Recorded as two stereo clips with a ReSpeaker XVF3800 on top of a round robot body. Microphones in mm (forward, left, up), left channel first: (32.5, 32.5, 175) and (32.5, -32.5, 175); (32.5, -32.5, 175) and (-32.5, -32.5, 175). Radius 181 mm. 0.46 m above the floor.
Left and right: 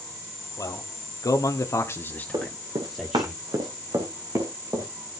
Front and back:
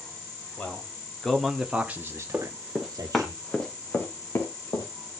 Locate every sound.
0.6 s a man speaking: 70° left, 2.5 m; by 3.3 s 165° right, 2.5 m
2.3 s running footsteps: 105° right, 3.5 m; by 4.9 s 40° right, 4 m